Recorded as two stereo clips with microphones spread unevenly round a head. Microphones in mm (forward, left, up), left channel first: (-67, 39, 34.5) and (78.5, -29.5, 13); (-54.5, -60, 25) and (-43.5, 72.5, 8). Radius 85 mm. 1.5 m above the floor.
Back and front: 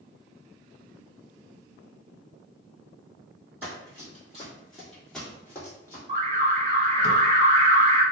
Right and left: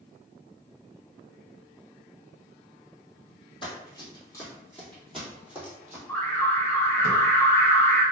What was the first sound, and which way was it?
Running footsteps, 110° right.